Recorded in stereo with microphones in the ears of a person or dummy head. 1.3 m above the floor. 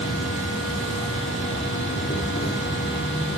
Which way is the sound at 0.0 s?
30° left (ahead or behind).